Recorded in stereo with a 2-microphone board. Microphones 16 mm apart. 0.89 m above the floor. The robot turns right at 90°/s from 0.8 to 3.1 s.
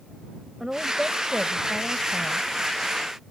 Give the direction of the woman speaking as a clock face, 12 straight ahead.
5 o'clock.